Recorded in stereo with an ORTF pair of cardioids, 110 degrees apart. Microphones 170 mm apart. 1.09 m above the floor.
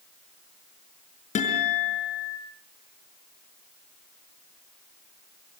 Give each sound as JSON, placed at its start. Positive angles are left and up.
{"t": 1.4, "sound": "a guitar", "azimuth_deg": 45, "distance_m": 6.5}